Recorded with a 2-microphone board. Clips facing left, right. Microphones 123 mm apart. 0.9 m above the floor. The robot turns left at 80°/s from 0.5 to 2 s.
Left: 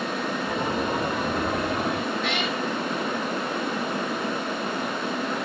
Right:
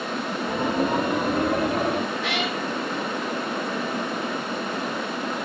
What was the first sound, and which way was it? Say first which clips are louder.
A cat meowing: even; 5° right (ahead or behind).